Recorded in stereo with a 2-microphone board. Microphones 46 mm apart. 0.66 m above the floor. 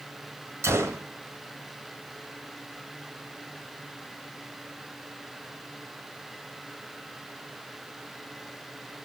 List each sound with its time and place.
0.6 s a gunshot: 80° right, 2.5 m